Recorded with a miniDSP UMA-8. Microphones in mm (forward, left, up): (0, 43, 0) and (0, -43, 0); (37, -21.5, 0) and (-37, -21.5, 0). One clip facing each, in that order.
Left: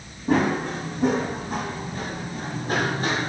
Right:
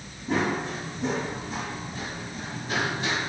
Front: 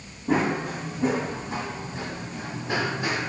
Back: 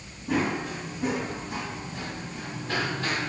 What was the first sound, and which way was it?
Running footsteps, 55° left.